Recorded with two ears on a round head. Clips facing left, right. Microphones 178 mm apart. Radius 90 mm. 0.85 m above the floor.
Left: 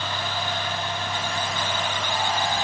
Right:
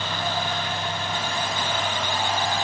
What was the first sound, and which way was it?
Only background noise.